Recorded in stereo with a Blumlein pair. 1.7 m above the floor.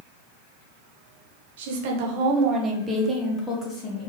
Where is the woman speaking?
55° right, 1.1 m; by 4.1 s 25° left, 1.0 m.